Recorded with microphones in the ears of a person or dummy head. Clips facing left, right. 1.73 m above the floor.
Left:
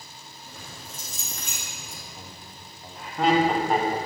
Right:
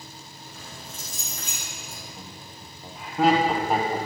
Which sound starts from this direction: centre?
Laughter, at 2.2 s.